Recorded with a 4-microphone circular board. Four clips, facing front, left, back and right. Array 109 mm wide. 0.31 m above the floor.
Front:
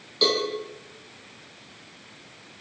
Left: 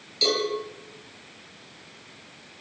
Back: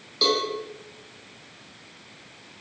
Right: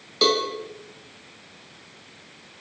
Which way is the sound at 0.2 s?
95° right.